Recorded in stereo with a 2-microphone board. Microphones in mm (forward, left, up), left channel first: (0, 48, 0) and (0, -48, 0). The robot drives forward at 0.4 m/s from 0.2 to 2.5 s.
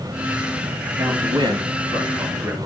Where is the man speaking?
50° right (ahead or behind), 2.5 m; by 2.7 s 45° right (ahead or behind), 3 m.